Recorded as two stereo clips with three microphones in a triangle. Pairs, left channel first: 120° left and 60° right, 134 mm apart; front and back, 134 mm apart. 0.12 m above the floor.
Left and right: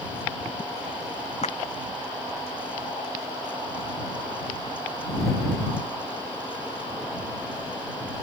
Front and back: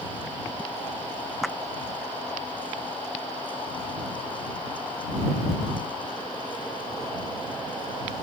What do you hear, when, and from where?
1.4 s a clap: 90° left